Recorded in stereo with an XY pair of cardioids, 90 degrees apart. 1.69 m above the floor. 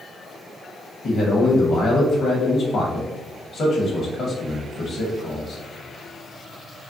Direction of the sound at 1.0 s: 60° left.